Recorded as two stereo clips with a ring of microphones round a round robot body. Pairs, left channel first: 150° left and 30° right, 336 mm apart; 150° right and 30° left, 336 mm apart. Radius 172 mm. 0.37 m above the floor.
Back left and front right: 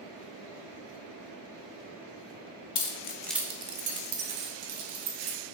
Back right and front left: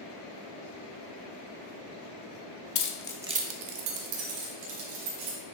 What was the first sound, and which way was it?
Keys jangling, 175° left.